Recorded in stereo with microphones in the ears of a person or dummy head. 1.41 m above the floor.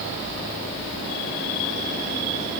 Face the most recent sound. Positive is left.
No sound to turn to.